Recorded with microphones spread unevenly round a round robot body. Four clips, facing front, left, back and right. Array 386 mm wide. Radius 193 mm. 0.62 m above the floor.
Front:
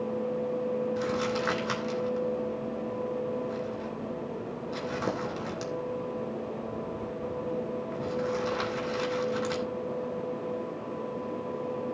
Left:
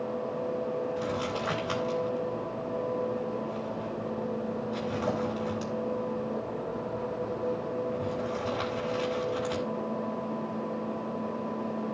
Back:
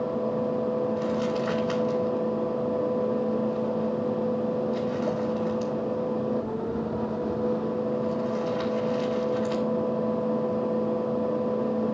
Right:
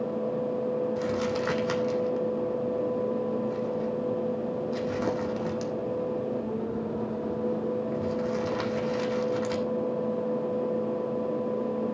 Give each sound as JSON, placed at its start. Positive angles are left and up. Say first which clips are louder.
{"t": 1.0, "sound": "crumpling", "louder": "right 3 dB, back 3 dB", "azimuth_deg": -60, "distance_m": 3.0}